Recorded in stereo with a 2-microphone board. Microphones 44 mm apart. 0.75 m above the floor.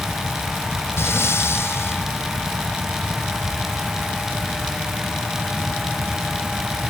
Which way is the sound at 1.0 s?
75° left (ahead or behind).